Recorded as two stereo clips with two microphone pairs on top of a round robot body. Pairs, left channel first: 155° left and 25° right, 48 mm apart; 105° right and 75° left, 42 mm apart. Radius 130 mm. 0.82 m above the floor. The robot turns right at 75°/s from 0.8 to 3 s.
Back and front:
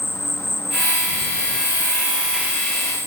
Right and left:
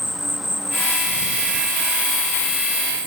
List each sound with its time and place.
0.0 s an insect: 160° left; by 3.1 s 35° right